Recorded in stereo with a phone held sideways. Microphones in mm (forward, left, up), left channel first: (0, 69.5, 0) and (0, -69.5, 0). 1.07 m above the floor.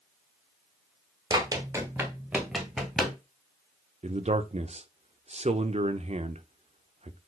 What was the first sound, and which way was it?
Running footsteps, 30° right (ahead or behind).